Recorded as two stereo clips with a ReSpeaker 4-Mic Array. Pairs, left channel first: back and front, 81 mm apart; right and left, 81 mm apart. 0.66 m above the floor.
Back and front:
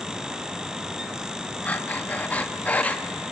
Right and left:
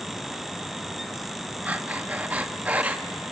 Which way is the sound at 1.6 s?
135° left.